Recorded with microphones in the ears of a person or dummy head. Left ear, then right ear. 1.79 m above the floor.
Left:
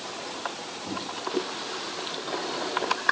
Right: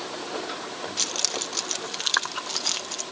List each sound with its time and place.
1.0 s keys jangling: 50° right (ahead or behind)